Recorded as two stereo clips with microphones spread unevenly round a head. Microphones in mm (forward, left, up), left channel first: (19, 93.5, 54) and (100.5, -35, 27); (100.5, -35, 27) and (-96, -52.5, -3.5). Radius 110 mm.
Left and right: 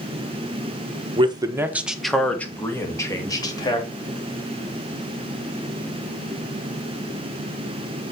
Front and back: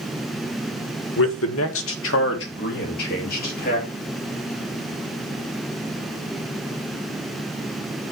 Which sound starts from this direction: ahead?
A man speaking, at 1.2 s.